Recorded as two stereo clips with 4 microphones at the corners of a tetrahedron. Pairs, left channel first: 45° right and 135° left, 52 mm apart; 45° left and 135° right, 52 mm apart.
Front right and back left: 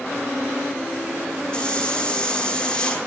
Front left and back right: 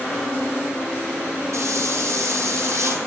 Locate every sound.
1.5 s a hiss: 115° right, 1.7 m